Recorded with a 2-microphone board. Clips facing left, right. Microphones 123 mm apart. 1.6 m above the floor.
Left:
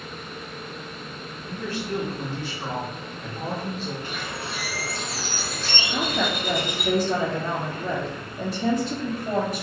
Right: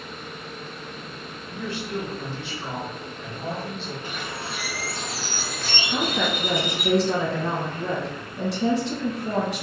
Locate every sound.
1.5 s a woman speaking: 40° left (ahead or behind), 1.4 m
4.0 s a bird: 15° right (ahead or behind), 1.5 m
5.9 s a woman speaking: 75° right (ahead or behind), 1.9 m